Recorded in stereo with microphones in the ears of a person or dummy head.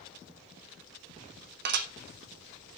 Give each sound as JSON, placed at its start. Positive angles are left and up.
{"t": 1.6, "sound": "dishes clattering", "side_deg": -60, "distance_m": 1.3}